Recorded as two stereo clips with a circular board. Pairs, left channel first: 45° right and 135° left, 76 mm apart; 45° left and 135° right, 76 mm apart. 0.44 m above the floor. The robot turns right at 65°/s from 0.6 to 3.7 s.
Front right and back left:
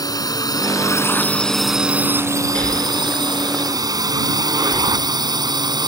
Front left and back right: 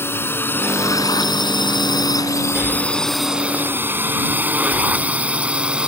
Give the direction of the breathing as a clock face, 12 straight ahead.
3 o'clock.